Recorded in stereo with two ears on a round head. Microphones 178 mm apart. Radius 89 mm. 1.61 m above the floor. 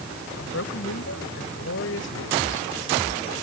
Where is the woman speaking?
70° left (ahead or behind).